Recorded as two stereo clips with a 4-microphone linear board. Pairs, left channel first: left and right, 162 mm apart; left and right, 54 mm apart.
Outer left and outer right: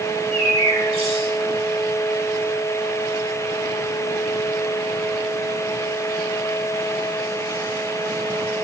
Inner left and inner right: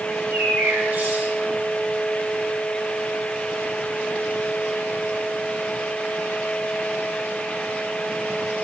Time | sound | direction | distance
0.1 | a bird | 40° right (ahead or behind) | 1.7 m